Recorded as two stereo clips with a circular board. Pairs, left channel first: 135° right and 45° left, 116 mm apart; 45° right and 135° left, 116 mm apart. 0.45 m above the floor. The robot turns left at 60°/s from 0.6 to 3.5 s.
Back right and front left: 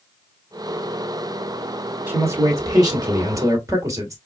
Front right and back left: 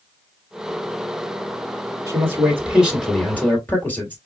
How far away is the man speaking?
About 1.5 m.